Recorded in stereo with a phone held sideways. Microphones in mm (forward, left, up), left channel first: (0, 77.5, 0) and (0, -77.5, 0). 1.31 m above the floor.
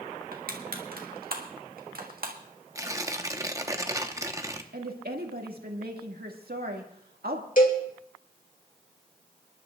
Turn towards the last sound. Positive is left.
turn(degrees=60)  # may be behind; listen again after turning